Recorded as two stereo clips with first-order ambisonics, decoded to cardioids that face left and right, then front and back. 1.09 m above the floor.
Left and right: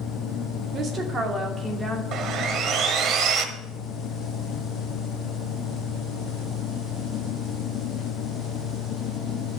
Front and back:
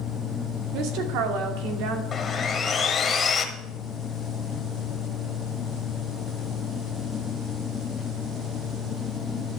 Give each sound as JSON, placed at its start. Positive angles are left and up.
{"t": 0.7, "sound": "a woman speaking", "azimuth_deg": -150, "distance_m": 2.0}
{"t": 2.1, "sound": "sawing", "azimuth_deg": -60, "distance_m": 1.1}